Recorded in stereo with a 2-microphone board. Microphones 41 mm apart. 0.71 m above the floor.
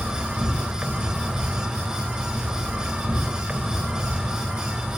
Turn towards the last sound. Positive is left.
turn(degrees=-20)  # may be behind; listen again after turning